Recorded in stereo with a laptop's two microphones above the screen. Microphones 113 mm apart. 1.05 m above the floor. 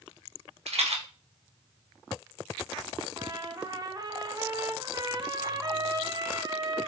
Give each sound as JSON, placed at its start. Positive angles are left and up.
{"t": 0.7, "sound": "a rattle", "side_deg": -70, "distance_m": 1.3}
{"t": 3.2, "sound": "a trumpet", "side_deg": -35, "distance_m": 0.7}